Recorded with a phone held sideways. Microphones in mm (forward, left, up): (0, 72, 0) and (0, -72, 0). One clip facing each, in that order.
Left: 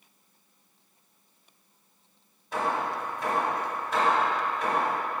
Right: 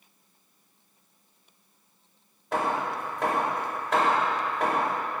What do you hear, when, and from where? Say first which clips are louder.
2.5 s hammering: right 1 dB; 85° right, 3 m